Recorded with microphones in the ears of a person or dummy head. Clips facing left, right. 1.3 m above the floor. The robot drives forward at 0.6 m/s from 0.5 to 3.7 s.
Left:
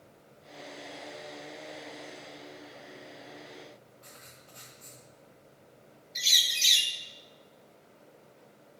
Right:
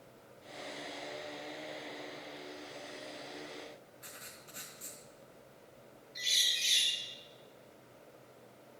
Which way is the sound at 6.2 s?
65° left (ahead or behind).